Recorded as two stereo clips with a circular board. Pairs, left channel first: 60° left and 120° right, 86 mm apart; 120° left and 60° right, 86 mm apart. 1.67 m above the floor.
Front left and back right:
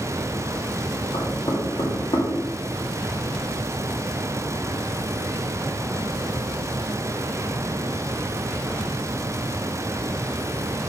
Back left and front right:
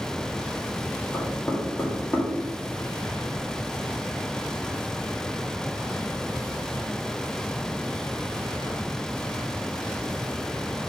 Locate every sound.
1.1 s knocking: 50° left, 2 m